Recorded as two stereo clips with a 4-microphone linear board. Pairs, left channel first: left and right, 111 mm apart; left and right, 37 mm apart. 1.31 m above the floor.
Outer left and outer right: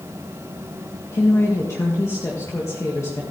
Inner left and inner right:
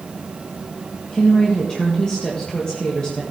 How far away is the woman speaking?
About 1.7 m.